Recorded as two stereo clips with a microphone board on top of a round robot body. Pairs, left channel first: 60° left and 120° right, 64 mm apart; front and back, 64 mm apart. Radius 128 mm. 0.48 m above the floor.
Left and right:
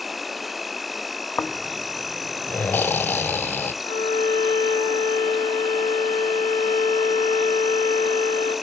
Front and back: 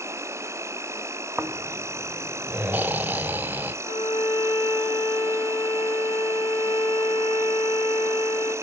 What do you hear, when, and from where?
0.0 s an insect: 150° left, 1.2 m
1.4 s snoring: 120° left, 1.0 m
3.8 s a violin: 50° left, 8.5 m